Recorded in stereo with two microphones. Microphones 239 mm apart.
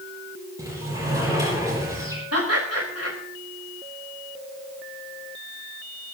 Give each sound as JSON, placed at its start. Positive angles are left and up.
{"t": 0.6, "sound": "a sliding door", "side_deg": -15, "distance_m": 9.5}
{"t": 2.3, "sound": "laughter", "side_deg": -85, "distance_m": 3.5}